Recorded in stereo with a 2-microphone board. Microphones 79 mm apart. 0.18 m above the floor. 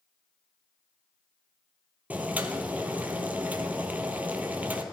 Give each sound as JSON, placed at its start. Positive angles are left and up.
{"t": 2.1, "sound": "boiling", "side_deg": -20, "distance_m": 1.0}